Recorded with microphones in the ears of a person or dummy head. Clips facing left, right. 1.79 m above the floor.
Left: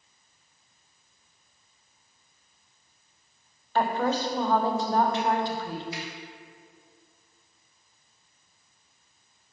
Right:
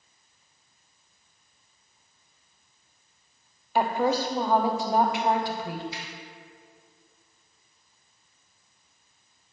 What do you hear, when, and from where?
3.8 s a woman speaking: 15° right (ahead or behind), 0.6 m
5.9 s a finger snap: 30° right (ahead or behind), 2 m